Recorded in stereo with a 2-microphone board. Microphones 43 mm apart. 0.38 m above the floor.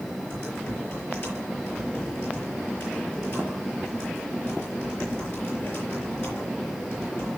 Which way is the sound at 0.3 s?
65° left (ahead or behind).